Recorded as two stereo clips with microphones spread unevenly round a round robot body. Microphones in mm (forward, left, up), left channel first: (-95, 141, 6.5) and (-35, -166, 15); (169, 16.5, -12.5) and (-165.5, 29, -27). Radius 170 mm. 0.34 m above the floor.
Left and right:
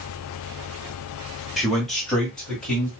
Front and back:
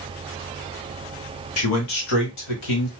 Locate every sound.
1.6 s a man speaking: 15° left, 1.1 m